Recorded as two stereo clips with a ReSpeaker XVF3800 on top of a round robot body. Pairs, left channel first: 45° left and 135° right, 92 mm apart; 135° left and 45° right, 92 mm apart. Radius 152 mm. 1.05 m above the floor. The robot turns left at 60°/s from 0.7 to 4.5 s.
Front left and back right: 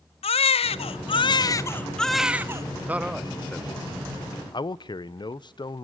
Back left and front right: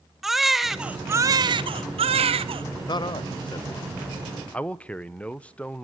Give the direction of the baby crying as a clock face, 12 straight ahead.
11 o'clock.